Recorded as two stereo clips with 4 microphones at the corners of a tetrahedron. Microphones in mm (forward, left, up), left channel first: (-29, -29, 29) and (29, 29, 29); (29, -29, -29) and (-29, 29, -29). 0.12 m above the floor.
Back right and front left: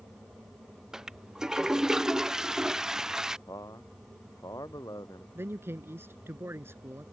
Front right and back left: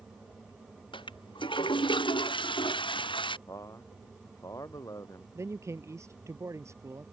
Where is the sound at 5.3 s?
95° left.